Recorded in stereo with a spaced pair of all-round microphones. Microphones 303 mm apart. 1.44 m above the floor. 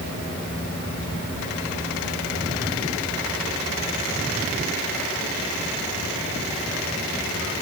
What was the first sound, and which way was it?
Only background noise.